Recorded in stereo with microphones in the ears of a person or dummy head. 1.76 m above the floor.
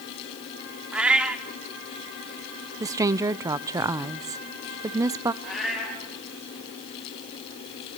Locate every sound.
0.9 s a cat meowing: 5° right (ahead or behind), 1.3 m
2.8 s a woman speaking: 20° right (ahead or behind), 0.7 m
5.4 s a cat meowing: centre (ahead or behind), 6.5 m